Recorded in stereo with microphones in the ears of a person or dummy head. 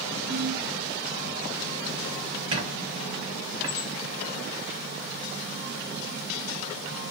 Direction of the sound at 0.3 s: 65° right (ahead or behind).